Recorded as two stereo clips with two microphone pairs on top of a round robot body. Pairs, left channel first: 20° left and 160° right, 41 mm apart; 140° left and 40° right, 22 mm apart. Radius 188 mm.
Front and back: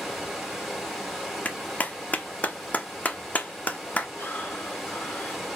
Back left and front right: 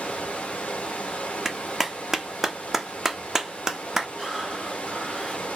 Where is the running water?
115° left, 1.4 m.